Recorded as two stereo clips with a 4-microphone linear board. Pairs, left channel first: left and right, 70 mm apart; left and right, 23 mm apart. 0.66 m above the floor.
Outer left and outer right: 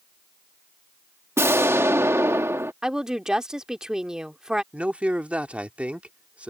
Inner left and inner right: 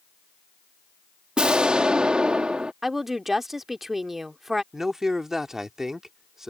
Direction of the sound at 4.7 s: 20° right (ahead or behind).